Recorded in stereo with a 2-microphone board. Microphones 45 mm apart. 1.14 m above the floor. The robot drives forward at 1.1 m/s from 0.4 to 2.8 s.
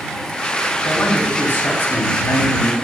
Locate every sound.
0.8 s a man speaking: 40° left (ahead or behind), 2.5 m; by 2.7 s 85° left, 1.7 m